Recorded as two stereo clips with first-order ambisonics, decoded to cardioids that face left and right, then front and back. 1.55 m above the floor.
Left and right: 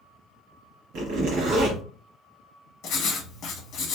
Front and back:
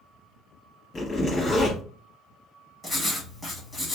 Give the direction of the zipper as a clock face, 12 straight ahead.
2 o'clock.